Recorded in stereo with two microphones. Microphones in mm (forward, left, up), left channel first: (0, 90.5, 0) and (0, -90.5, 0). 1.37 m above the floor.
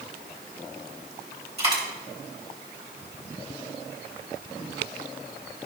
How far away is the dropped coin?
About 3 m.